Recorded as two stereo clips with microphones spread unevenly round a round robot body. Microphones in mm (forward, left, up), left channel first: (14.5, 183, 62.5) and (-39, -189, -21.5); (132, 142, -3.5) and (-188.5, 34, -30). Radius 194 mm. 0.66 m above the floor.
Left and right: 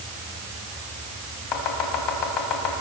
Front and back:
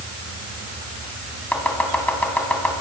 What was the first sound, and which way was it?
Chopping, 105° left.